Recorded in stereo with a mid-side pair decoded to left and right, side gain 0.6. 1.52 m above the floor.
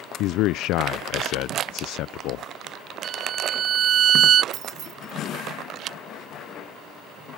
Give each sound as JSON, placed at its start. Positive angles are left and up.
{"t": 0.2, "sound": "a man speaking", "azimuth_deg": 65}
{"t": 3.0, "sound": "a violin", "azimuth_deg": -50}
{"t": 4.5, "sound": "keys jangling", "azimuth_deg": -55}